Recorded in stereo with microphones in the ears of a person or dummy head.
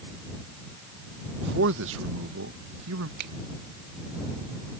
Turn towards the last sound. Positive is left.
turn(degrees=-55)  # may be behind; listen again after turning